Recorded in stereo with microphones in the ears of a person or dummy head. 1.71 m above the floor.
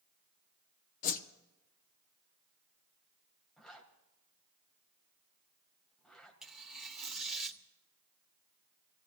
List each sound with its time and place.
1.0 s a whoosh: 45° left (ahead or behind), 0.9 m
3.6 s a zipper: 5° left (ahead or behind), 1.7 m
6.4 s tearing paper: 5° right (ahead or behind), 1.2 m